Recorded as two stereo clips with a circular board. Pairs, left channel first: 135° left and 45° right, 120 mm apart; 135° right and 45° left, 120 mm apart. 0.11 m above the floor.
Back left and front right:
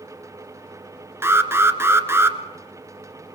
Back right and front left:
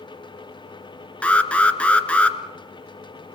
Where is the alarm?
70° right, 1.3 m.